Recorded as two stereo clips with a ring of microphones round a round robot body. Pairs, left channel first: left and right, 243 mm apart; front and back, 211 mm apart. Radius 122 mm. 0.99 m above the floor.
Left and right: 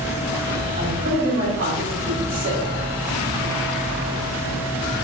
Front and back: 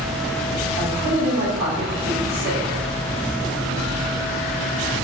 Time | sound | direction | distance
0.8 | a man speaking | 145° right | 3.5 m